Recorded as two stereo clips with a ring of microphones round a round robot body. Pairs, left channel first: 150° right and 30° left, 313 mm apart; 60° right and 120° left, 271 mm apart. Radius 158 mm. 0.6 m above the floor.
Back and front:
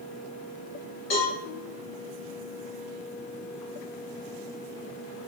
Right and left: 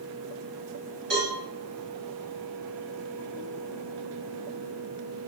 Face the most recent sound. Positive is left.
turn(degrees=165)